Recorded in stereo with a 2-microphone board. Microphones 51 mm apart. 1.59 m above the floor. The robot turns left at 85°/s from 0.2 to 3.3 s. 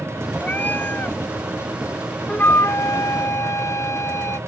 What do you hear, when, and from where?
0.4 s a cat meowing: 130° left; by 1.2 s 65° left
2.3 s a flute: 155° left; by 4.4 s 65° left